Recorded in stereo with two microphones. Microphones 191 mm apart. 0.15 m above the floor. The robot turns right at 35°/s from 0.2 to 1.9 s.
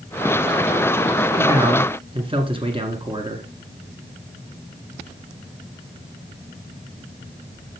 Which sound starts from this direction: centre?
A man speaking, at 1.4 s.